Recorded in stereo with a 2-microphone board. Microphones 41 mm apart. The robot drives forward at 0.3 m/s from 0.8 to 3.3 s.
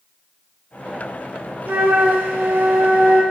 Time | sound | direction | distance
1.7 | a flute | 65° right (ahead or behind) | 0.6 m